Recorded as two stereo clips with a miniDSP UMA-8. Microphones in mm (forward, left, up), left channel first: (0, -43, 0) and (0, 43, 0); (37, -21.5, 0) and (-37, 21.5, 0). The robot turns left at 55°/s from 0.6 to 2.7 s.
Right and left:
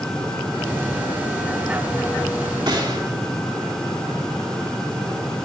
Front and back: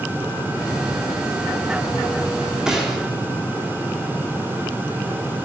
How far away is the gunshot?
About 2 m.